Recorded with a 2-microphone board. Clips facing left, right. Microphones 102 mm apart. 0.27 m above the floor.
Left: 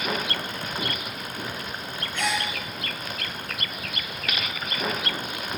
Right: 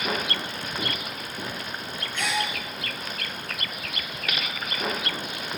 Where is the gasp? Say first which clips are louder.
Left 1 dB; 10° left (ahead or behind), 1.3 m.